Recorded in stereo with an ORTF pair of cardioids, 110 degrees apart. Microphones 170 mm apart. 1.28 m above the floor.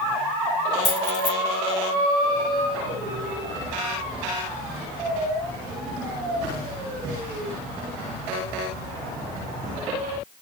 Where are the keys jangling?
50° left, 3.5 m.